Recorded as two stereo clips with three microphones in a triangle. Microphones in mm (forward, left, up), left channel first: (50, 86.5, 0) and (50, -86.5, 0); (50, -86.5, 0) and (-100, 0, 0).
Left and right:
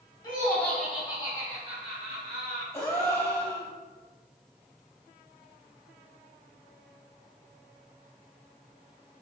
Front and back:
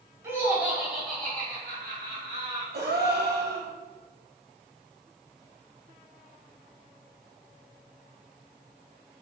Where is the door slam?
I don't hear a door slam.